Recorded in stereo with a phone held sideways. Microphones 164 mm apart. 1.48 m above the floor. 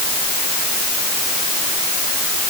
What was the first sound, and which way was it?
Only background noise.